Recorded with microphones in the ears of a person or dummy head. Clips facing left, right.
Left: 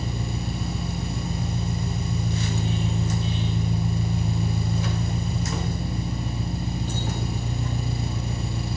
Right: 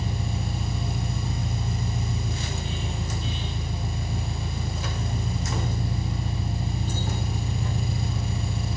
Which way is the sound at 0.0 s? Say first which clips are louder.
Left 1 dB; 75° left (ahead or behind).